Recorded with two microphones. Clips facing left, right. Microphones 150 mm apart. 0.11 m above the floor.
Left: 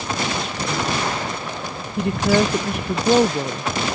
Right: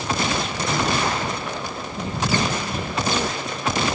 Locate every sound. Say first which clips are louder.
2.0 s a woman speaking: left 7 dB; 65° left (ahead or behind)